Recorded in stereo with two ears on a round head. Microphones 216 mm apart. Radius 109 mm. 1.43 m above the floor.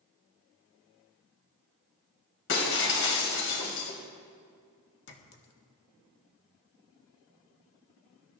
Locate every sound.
2.5 s breaking glass: 55° left (ahead or behind), 3.5 m
5.1 s a clink: 50° left (ahead or behind), 1.8 m